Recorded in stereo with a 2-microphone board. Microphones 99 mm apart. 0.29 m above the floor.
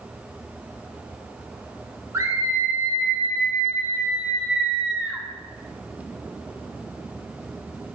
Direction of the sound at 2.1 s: 30° right (ahead or behind).